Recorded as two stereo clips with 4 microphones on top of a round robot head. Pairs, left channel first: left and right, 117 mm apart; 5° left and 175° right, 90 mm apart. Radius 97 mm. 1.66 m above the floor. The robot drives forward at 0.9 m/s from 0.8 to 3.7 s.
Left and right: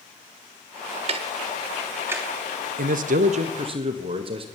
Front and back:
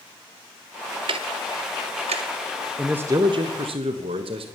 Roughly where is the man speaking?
Right.